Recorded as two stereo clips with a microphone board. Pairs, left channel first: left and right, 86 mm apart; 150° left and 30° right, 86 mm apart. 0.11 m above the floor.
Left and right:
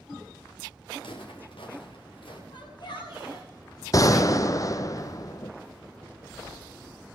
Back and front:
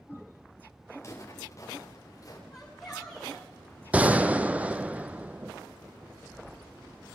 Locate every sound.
1.0 s footsteps: 95° left, 7 m; by 2.4 s 105° left, 6.5 m
2.5 s a shout: 65° left, 9 m
3.9 s a gunshot: 45° left, 0.8 m